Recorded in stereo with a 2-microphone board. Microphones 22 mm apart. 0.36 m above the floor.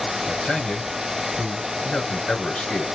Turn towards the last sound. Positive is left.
turn(degrees=55)  # may be behind; listen again after turning